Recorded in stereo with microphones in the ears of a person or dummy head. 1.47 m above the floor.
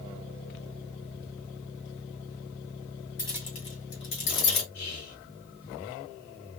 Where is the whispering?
80° left, 2 m.